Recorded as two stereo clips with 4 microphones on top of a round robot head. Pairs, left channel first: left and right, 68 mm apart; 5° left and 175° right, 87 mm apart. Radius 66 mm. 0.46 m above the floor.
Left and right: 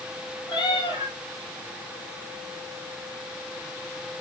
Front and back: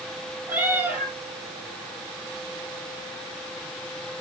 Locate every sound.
0.5 s a cat meowing: 120° left, 7.5 m